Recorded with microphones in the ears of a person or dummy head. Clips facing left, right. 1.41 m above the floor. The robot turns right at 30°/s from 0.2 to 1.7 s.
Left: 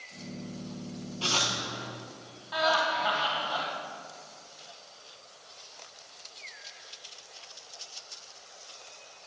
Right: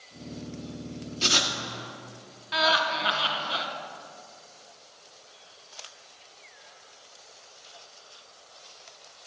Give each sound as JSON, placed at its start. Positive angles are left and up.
{"t": 1.2, "sound": "writing", "side_deg": -20, "distance_m": 0.9}
{"t": 2.5, "sound": "laughter", "side_deg": -25, "distance_m": 1.4}